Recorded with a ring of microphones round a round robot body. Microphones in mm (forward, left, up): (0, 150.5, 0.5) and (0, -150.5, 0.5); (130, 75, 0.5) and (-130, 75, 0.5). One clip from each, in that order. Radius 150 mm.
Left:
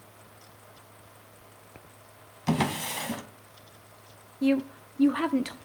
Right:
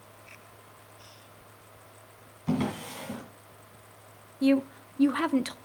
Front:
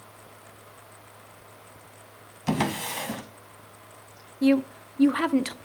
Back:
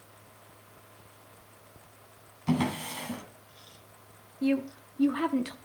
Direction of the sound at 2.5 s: 45° left.